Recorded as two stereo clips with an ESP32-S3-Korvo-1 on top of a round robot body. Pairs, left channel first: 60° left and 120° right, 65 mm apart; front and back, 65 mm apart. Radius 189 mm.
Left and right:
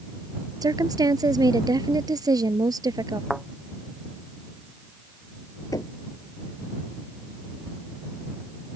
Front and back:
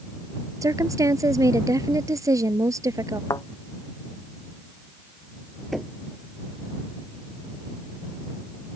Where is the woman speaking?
145° right.